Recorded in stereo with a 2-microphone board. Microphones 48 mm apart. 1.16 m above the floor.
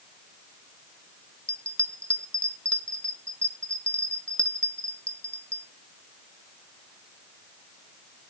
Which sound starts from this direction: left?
A bell, at 1.5 s.